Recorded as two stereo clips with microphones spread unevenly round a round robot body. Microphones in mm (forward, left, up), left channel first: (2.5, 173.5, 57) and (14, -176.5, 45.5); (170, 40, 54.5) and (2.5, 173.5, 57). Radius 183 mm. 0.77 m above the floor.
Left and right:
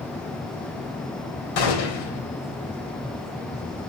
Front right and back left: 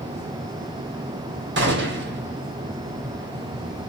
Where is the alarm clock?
I don't hear an alarm clock.